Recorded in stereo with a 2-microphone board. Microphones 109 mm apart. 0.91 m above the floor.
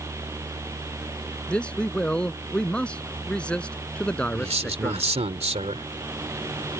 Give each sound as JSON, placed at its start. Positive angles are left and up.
{"t": 1.5, "sound": "a man speaking", "side_deg": 10}
{"t": 4.3, "sound": "a man speaking", "side_deg": -75}